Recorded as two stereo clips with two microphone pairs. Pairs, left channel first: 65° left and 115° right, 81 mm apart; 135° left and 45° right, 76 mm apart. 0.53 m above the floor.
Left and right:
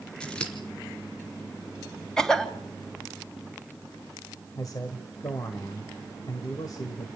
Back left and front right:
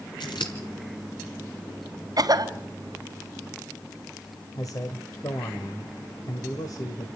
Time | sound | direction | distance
0.2 | scissors | 145° left | 3.5 m
2.2 | a cough | 15° right | 2.5 m
4.5 | a man speaking | 105° left | 2 m